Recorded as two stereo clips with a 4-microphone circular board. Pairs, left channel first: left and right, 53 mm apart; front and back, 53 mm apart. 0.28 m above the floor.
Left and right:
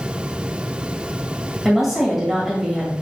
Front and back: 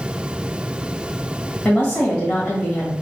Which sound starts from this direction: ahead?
A woman speaking, at 1.6 s.